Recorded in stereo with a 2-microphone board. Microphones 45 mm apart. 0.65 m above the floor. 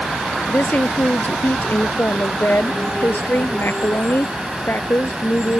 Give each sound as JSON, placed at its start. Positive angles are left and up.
{"t": 0.5, "sound": "a woman speaking", "side_deg": 45}